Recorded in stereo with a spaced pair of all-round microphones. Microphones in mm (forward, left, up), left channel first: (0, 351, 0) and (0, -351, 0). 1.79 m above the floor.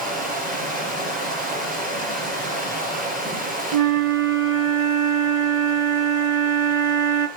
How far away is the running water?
About 4.5 m.